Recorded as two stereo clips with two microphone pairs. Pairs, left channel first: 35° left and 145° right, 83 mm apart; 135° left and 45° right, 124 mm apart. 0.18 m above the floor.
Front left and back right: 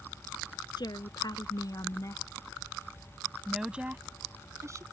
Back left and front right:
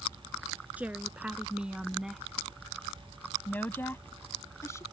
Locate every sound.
0.8 s a woman speaking: 30° left; by 4.8 s 170° right